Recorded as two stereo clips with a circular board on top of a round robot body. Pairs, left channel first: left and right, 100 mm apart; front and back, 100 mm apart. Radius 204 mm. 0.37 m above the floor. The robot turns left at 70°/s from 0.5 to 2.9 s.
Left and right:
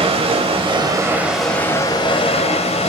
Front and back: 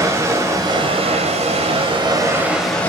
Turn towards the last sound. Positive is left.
turn(degrees=75)